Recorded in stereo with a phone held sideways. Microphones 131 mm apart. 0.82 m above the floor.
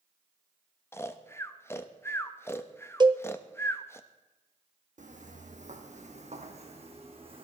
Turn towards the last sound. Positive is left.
turn(degrees=-45)  # may be behind; listen again after turning